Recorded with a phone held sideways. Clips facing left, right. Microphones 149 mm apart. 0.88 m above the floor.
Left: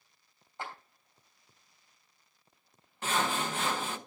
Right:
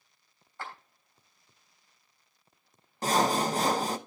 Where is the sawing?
40° right (ahead or behind), 0.6 m.